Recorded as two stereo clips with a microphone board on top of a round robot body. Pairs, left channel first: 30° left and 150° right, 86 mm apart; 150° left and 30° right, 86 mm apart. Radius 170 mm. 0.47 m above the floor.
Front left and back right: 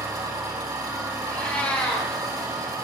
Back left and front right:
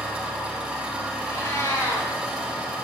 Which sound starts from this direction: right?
An engine running, at 0.0 s.